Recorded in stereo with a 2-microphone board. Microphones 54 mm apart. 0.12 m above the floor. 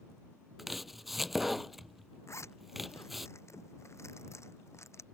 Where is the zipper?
55° left (ahead or behind).